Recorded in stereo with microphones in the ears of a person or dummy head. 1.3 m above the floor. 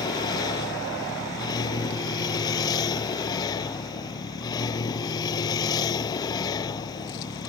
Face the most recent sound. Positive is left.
turn(degrees=20)  # may be behind; listen again after turning